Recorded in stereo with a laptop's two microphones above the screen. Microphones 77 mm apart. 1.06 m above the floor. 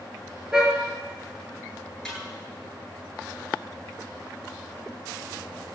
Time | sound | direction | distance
0.5 | a car horn | 10° right (ahead or behind) | 7 m
2.0 | a snare drum | 5° left (ahead or behind) | 10 m